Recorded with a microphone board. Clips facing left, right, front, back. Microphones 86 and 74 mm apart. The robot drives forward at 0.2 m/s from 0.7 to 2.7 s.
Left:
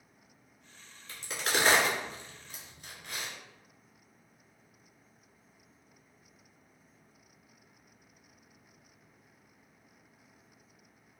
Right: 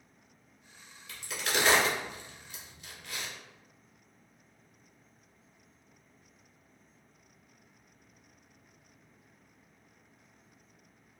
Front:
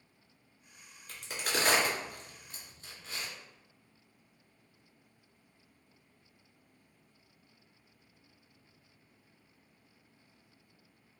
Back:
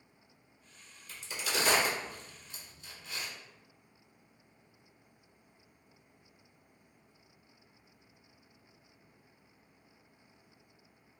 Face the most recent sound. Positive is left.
turn(degrees=50)